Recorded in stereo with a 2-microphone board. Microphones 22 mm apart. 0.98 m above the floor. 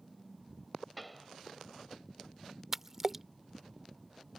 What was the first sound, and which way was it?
A pop, 10° left (ahead or behind).